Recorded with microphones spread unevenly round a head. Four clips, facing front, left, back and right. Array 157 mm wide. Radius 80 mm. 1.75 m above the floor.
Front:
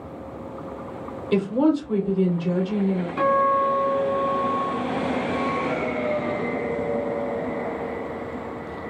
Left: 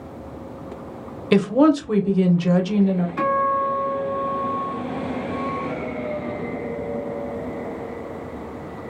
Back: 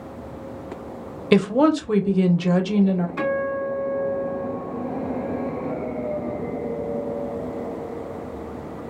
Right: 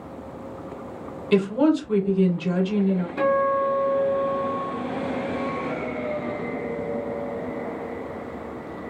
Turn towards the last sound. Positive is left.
turn(degrees=30)